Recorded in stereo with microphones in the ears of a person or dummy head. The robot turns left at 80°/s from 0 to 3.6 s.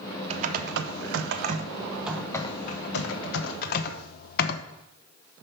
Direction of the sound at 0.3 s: 35° right.